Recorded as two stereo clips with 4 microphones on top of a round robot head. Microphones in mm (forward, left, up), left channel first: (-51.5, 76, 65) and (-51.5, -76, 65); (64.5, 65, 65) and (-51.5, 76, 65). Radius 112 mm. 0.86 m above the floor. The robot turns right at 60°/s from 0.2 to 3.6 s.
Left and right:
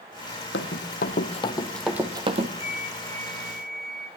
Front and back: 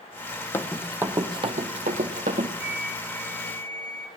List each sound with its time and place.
0.5 s running footsteps: 60° left, 1.5 m; by 2.5 s 120° right, 1.4 m
2.6 s a flute: 15° right, 4 m; by 4.1 s 45° left, 4 m